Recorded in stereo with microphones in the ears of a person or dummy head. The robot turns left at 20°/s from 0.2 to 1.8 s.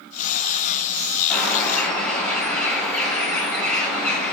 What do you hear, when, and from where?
1.3 s a bird: centre (ahead or behind), 5.5 m; by 4.3 s 10° left (ahead or behind), 5.5 m